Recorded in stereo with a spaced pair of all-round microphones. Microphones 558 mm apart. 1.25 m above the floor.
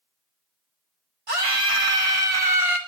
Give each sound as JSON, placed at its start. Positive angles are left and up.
{"t": 1.3, "sound": "a scream", "side_deg": -65, "distance_m": 2.5}